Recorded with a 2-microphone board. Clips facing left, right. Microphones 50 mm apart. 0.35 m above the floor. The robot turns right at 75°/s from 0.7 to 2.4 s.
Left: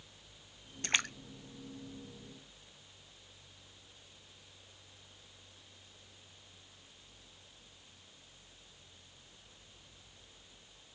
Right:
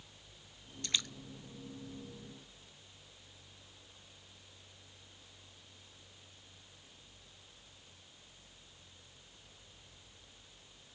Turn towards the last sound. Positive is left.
turn(degrees=10)  # may be behind; listen again after turning